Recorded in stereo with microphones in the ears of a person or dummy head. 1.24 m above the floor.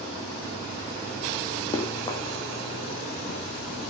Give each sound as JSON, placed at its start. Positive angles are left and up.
{"t": 1.7, "sound": "running footsteps", "side_deg": 25, "distance_m": 3.5}